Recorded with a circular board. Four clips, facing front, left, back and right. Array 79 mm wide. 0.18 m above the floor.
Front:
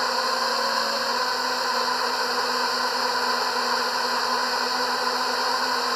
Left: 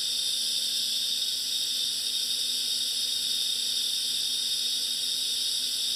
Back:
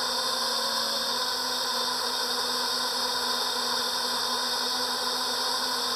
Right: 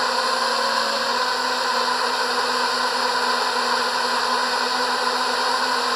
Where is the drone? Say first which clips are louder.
Right 22 dB, front 7 dB; 65° right.